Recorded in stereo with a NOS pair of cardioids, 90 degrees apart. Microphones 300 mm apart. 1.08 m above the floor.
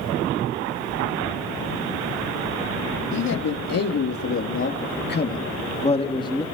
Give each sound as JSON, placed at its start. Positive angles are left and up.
{"t": 3.1, "sound": "a man speaking", "azimuth_deg": 60, "distance_m": 3.0}